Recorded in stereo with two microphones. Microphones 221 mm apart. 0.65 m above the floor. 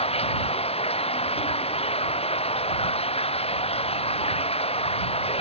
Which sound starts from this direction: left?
Running water, at 0.0 s.